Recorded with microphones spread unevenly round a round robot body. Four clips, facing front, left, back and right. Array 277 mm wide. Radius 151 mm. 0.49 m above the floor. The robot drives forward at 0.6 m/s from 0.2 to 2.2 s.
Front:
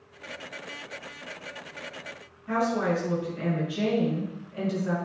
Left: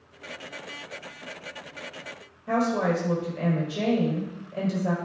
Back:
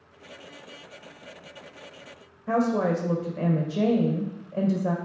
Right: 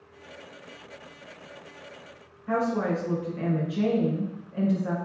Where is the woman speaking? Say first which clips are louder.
Left 2 dB, back 2 dB; 160° left, 2 m.